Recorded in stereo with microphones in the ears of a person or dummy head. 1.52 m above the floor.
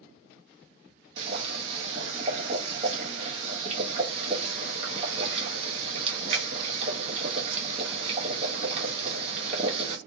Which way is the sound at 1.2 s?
30° right (ahead or behind).